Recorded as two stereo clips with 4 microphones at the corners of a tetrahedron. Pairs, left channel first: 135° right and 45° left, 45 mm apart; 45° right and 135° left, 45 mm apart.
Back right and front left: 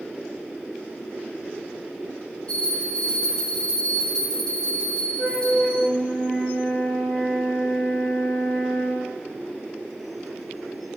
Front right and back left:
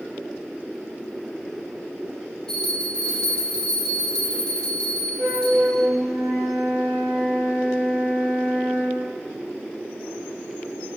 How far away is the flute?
About 1.8 m.